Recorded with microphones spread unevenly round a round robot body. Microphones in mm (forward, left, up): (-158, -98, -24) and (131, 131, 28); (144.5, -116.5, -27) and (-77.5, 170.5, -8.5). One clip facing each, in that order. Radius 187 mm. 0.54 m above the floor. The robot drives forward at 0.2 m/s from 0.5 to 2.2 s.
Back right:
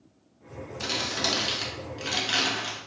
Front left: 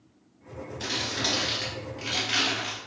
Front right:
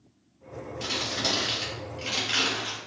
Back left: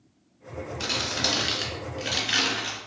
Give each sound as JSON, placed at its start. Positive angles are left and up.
{"t": 0.8, "sound": "crumpling", "azimuth_deg": 160, "distance_m": 1.1}